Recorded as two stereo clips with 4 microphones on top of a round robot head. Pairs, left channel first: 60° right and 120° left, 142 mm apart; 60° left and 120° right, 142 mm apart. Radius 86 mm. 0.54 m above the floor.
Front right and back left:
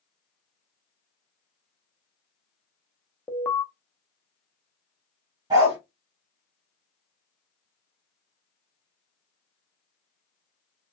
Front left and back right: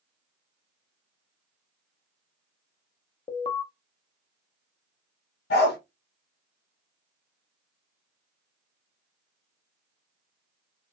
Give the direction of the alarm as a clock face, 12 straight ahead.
11 o'clock.